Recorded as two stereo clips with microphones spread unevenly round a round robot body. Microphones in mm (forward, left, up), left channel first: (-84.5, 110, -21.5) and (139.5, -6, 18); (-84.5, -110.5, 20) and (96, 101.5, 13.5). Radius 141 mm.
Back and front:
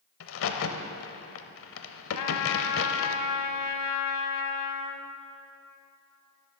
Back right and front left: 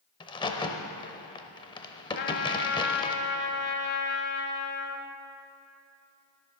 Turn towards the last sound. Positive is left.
turn(degrees=175)